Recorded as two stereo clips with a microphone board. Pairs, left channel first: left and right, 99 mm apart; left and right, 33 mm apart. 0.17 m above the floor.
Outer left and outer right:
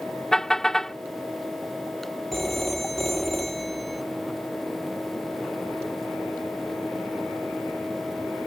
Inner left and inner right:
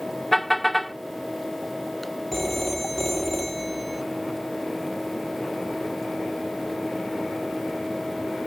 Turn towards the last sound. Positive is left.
turn(degrees=0)  # may be behind; listen again after turning